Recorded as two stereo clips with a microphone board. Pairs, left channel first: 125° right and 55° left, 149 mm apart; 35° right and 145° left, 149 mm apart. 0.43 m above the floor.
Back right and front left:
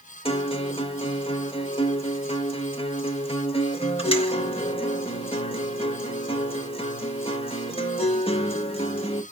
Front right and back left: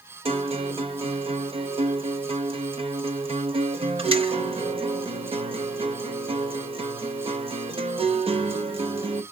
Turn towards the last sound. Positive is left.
turn(degrees=-170)